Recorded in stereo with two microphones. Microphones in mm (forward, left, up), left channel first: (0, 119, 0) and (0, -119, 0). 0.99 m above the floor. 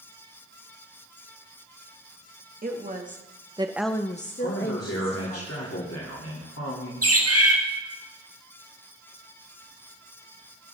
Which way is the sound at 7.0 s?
75° right (ahead or behind).